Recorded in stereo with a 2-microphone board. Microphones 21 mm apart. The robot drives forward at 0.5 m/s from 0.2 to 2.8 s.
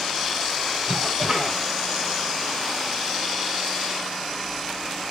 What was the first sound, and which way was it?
A cough, 40° right (ahead or behind).